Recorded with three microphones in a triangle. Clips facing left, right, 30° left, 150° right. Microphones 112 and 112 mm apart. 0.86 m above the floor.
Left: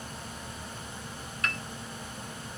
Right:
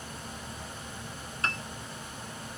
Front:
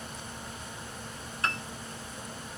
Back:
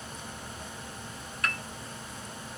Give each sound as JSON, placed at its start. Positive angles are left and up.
{"t": 1.4, "sound": "a piano", "azimuth_deg": -35, "distance_m": 0.5}